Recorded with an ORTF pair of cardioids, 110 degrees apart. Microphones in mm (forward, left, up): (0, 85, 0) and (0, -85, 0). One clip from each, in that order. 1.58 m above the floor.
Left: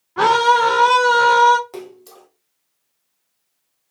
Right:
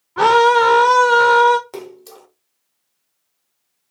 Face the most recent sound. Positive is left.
turn(degrees=-15)